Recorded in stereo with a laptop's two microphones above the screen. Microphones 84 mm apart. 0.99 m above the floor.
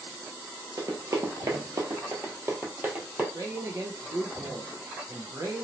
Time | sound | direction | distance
0.8 | running footsteps | 45° right (ahead or behind) | 1.3 m
3.3 | a man speaking | 45° right (ahead or behind) | 0.7 m